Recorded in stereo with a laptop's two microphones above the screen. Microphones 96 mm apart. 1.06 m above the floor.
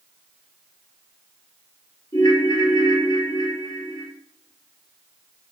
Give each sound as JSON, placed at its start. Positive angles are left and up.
{"t": 2.1, "sound": "a ringtone", "side_deg": 35, "distance_m": 0.9}